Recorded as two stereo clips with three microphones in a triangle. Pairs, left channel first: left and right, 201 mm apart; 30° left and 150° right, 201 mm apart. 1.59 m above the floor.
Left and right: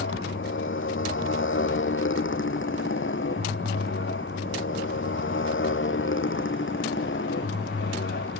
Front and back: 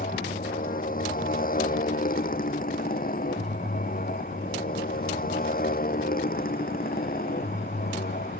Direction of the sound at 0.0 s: 75° left.